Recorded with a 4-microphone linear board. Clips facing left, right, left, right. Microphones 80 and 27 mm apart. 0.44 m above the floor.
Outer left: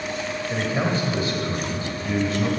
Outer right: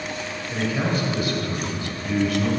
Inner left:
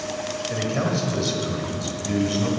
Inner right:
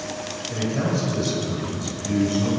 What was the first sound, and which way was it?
A man speaking, 30° left (ahead or behind).